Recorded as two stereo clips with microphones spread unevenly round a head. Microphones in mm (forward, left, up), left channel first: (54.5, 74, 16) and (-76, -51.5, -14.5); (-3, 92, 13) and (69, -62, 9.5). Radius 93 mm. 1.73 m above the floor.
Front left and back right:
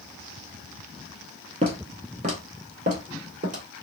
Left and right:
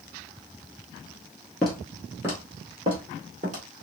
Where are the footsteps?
165° right, 1.9 m; by 3.6 s 95° right, 2.5 m.